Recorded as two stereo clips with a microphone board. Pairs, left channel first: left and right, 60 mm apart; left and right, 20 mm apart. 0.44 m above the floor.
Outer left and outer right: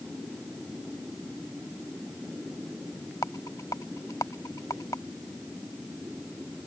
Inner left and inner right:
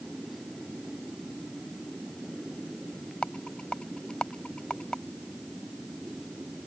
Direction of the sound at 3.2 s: 75° left (ahead or behind).